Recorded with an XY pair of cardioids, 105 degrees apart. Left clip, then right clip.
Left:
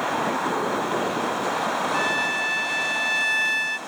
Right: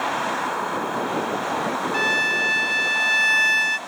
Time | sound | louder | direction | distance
1.9 | a violin | right 6 dB | 35° right | 0.6 m